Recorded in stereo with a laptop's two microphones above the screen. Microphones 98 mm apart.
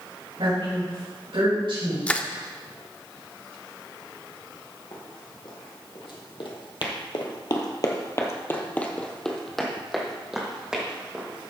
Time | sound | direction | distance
0.4 | a woman speaking | 75° right (ahead or behind) | 4.5 m
2.1 | crushing | 15° left (ahead or behind) | 0.7 m
4.9 | running footsteps | 55° left (ahead or behind) | 3 m